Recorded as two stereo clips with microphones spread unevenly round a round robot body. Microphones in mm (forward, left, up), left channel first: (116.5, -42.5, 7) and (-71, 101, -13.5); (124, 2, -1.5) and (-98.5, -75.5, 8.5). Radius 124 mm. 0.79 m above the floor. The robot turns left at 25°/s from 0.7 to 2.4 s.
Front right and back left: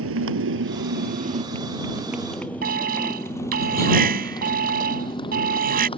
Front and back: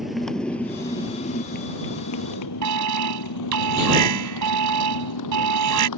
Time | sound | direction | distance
0.0 | a motorcycle | 110° left | ?
2.6 | an alarm | 160° right | ?